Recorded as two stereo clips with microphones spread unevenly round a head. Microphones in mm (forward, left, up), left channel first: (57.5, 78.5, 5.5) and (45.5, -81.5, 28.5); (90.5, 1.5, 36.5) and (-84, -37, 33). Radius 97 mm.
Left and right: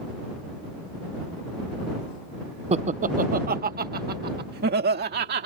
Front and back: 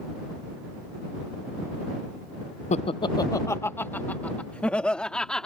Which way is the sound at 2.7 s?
40° right.